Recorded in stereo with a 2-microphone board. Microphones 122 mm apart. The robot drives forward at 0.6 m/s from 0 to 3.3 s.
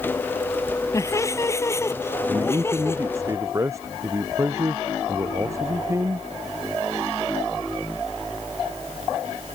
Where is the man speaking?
25° right (ahead or behind).